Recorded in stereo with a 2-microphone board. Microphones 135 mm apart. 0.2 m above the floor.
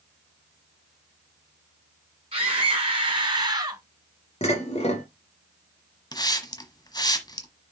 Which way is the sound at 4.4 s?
50° left (ahead or behind).